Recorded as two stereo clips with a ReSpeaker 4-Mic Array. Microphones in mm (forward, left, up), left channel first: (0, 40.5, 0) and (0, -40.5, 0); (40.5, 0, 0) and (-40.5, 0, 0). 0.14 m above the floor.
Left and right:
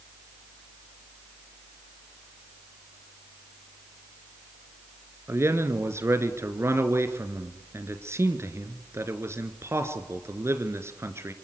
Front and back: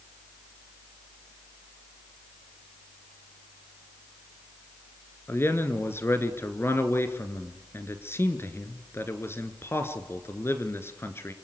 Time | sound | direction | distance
5.3 | a man speaking | 50° right | 2 m